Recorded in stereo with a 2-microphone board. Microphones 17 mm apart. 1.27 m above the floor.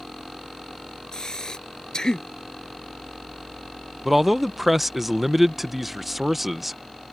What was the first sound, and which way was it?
Breathing, 35° left (ahead or behind).